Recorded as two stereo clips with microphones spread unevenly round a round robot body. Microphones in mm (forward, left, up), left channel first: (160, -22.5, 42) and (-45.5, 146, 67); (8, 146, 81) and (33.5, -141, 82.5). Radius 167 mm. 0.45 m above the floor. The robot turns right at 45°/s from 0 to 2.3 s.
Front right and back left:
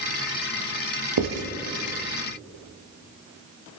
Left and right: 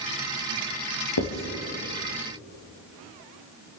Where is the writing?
125° left, 3 m; by 1.4 s 135° left, 3 m.